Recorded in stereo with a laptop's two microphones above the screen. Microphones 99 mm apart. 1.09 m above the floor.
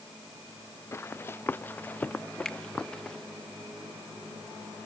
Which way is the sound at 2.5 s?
5° left (ahead or behind).